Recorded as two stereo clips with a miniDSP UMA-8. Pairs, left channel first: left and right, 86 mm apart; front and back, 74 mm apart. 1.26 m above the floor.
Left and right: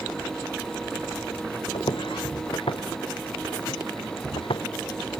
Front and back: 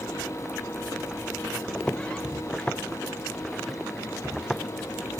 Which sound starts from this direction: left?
Footsteps, at 1.7 s.